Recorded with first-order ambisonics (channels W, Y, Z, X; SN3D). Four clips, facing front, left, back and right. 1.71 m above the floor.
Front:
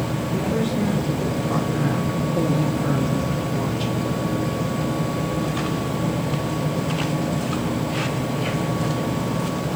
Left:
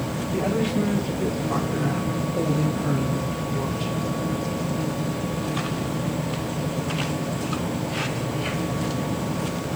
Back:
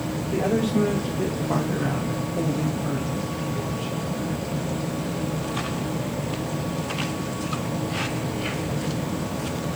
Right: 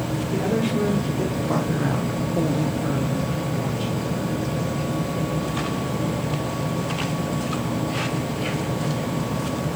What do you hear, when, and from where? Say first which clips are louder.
0.3 s a woman speaking: even, back 2 dB; 140° right, 1.2 m; by 4.1 s 5° left, 1.2 m